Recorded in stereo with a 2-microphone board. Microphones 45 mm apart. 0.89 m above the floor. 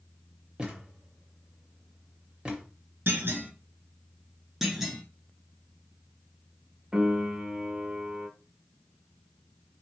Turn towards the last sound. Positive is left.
turn(degrees=-10)  # may be behind; listen again after turning